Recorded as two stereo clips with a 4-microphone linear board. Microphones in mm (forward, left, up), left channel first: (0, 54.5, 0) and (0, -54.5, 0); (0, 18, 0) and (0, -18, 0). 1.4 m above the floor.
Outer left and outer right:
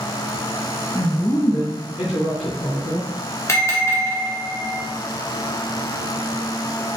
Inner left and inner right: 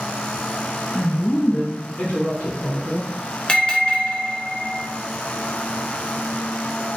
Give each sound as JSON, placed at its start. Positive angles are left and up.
{"t": 0.9, "sound": "a woman speaking", "side_deg": 10, "distance_m": 0.6}
{"t": 3.5, "sound": "a bell", "side_deg": 25, "distance_m": 0.7}